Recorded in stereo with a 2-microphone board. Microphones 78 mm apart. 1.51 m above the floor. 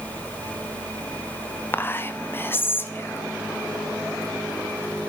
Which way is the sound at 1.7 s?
25° left (ahead or behind).